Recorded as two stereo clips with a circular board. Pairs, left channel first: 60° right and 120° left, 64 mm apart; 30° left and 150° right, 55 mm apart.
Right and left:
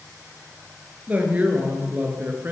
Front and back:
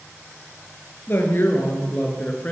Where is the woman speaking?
60° left, 3 m; by 2.5 s 80° left, 2.5 m.